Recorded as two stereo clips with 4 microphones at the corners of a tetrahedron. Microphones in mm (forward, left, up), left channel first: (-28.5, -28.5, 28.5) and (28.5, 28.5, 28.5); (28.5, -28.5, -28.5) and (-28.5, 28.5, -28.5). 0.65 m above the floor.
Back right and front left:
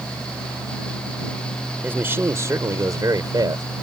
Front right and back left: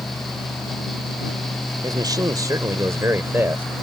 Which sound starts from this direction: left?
A man speaking, at 1.8 s.